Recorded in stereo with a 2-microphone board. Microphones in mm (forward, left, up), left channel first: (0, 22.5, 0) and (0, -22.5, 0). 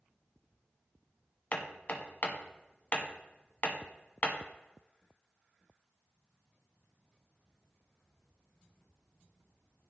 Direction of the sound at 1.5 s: 40° left (ahead or behind).